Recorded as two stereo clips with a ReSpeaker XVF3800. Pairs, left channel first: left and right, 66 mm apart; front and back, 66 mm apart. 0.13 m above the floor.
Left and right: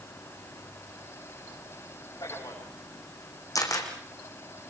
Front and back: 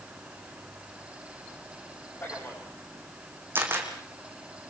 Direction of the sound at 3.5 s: 120° left.